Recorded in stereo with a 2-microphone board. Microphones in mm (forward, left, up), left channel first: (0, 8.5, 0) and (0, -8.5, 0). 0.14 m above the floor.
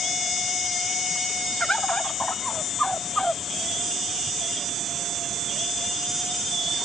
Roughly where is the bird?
Left.